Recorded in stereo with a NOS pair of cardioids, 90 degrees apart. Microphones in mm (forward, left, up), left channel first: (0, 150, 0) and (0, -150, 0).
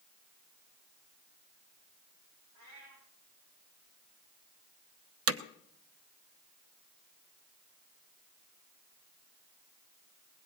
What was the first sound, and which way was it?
A cat meowing, 65° right.